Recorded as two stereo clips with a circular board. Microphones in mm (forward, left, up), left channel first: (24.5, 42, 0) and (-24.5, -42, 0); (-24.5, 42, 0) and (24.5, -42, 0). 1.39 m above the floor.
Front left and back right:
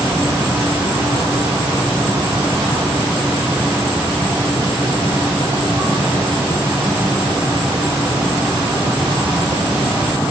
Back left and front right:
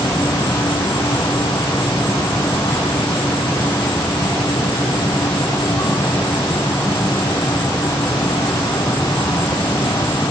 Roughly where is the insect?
Behind.